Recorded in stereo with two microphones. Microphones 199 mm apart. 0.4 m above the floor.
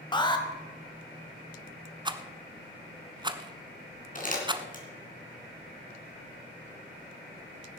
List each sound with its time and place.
0.1 s an alarm: 25° left (ahead or behind), 1.6 m
2.0 s a rattle: 25° right (ahead or behind), 0.9 m
4.2 s crumpling: 45° left (ahead or behind), 3 m